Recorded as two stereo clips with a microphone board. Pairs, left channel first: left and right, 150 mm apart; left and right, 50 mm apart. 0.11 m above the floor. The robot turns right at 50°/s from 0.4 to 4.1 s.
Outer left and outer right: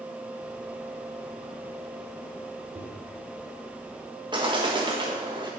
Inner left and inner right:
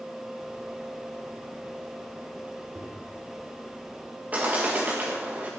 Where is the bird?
30° right (ahead or behind), 4 m.